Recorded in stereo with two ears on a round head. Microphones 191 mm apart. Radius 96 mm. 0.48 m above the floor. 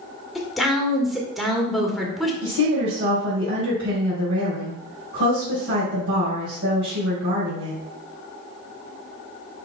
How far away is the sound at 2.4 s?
About 3 m.